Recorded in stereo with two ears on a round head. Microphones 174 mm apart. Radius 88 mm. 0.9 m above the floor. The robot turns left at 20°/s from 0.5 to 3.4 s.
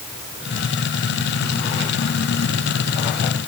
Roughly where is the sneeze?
No sneeze in this recording.